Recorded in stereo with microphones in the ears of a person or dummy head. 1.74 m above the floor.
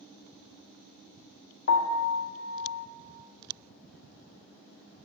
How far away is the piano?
About 0.5 m.